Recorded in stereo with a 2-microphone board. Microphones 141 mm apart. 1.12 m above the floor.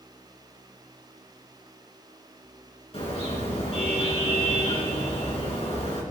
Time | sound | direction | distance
2.9 | a car horn | 45° left (ahead or behind) | 5.5 m